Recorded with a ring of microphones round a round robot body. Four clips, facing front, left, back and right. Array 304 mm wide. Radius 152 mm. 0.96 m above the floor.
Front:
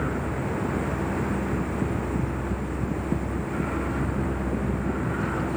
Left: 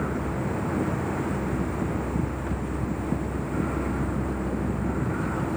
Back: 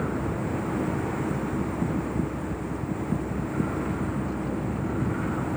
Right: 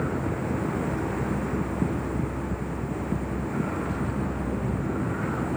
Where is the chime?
I don't hear a chime.